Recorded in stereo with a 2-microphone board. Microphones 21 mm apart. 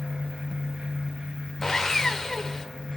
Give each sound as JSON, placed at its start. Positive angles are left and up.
{"t": 1.6, "sound": "sawing", "side_deg": 25, "distance_m": 0.9}